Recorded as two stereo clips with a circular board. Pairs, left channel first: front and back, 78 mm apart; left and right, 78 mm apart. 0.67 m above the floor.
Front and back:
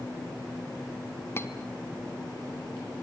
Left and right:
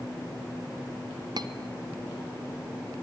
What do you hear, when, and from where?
1.4 s cutlery clinking: 60° right, 1.6 m